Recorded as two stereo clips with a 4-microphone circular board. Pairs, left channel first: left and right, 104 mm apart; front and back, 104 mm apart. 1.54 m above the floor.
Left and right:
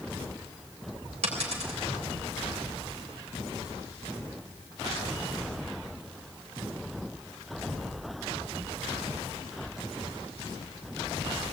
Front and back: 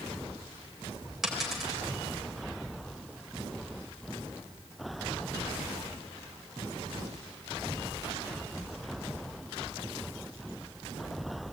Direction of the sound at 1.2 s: 95° right.